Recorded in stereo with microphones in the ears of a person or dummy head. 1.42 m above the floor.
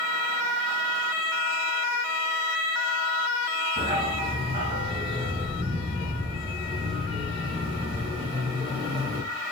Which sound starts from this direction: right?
A dog barking, at 3.8 s.